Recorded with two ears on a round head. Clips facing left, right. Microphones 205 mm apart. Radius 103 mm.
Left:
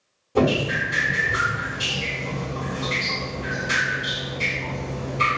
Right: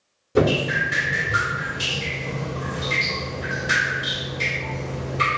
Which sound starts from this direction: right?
Dripping, at 0.3 s.